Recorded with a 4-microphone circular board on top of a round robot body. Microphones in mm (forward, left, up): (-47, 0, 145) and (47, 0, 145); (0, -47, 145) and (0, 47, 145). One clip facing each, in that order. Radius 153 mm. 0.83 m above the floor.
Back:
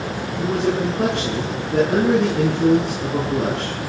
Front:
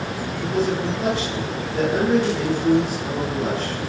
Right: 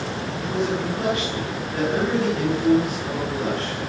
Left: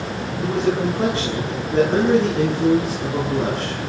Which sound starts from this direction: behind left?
A man speaking, at 0.4 s.